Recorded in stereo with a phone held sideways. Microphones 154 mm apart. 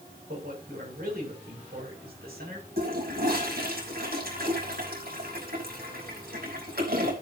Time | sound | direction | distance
0.3 | a man speaking | 85° right | 7.5 m
2.8 | a toilet flushing | 80° right | 5.5 m